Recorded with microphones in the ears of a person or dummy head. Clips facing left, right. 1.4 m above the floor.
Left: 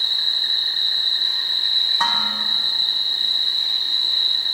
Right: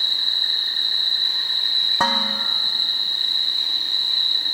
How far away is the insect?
About 5 m.